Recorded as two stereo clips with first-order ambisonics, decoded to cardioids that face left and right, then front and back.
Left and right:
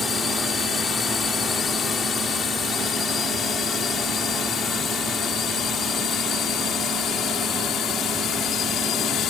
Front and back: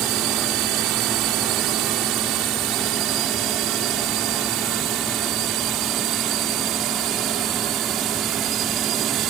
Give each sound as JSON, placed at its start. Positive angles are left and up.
{"t": 0.0, "sound": "a drone", "azimuth_deg": 160}